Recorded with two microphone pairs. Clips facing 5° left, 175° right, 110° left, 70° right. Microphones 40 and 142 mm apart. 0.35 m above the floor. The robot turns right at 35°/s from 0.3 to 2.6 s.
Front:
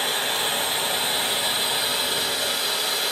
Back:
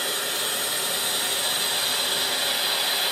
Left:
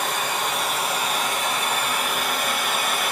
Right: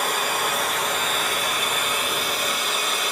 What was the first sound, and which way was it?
Running water, 10° left.